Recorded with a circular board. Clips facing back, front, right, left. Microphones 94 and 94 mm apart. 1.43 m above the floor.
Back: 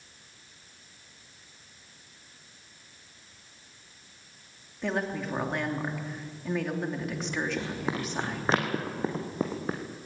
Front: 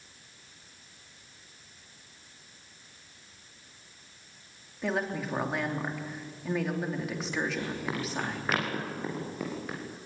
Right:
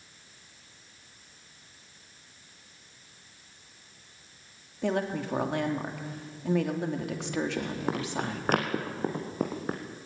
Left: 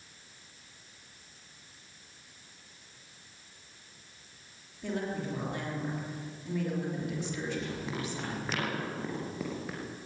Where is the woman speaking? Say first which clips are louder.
Even, right 5 dB; 90° right, 3 m.